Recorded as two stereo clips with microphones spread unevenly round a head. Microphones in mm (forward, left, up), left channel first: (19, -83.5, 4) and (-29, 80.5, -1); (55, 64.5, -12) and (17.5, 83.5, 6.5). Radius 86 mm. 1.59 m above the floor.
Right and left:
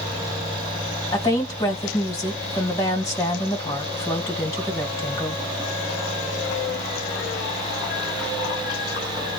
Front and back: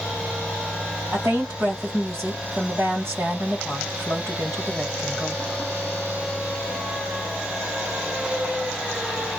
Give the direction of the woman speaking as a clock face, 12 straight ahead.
5 o'clock.